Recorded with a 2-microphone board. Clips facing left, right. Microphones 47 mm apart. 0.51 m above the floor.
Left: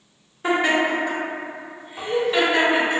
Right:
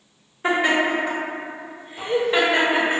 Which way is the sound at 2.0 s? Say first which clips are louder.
Left 1 dB; 45° left (ahead or behind).